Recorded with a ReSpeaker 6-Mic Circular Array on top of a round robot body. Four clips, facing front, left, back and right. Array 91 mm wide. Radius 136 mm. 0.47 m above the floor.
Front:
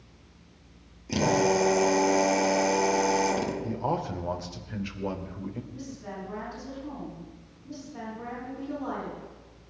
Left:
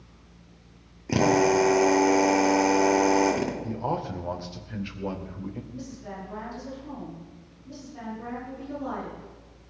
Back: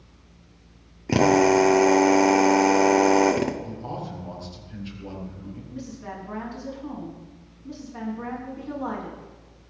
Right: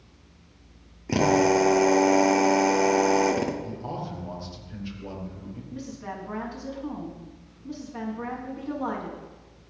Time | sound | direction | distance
1.1 | a drill | straight behind | 2.0 m
3.6 | a man speaking | 45° left | 2.5 m
5.7 | a woman speaking | 120° right | 6.5 m